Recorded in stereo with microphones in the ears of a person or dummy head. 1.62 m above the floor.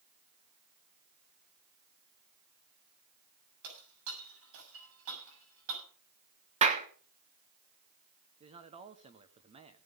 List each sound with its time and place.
3.6 s breaking glass: 75° right (ahead or behind), 7 m
6.6 s a clap: 35° right (ahead or behind), 1.2 m
8.4 s a man speaking: 35° right (ahead or behind), 1.0 m